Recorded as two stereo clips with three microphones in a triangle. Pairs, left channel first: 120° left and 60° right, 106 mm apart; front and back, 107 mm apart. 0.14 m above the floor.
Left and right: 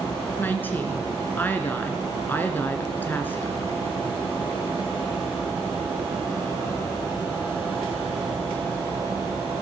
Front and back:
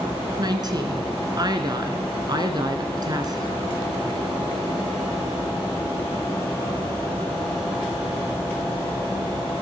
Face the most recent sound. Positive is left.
turn(degrees=180)